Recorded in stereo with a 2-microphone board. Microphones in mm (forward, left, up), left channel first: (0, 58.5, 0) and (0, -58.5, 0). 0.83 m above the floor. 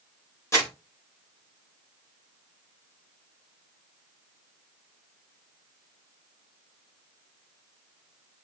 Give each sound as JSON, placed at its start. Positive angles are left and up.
{"t": 0.5, "sound": "crumpling", "side_deg": 30, "distance_m": 4.5}